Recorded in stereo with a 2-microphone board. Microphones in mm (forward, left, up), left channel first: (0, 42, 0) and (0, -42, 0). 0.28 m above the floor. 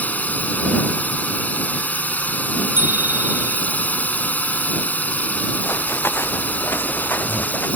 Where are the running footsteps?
30° left (ahead or behind); by 7.7 s 25° left (ahead or behind).